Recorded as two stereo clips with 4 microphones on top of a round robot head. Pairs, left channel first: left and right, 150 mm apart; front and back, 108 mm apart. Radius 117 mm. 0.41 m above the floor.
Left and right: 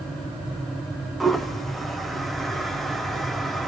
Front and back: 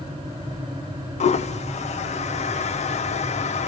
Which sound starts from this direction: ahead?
A toilet flushing, at 1.2 s.